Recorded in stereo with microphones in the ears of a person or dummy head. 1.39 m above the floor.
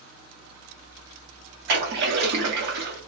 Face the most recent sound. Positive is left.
turn(degrees=-60)  # may be behind; listen again after turning